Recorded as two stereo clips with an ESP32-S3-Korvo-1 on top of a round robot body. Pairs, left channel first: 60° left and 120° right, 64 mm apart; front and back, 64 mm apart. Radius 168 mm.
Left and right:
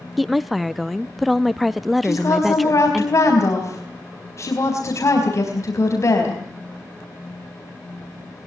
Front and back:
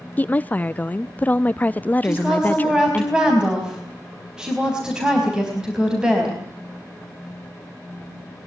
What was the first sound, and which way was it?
A woman speaking, 30° right.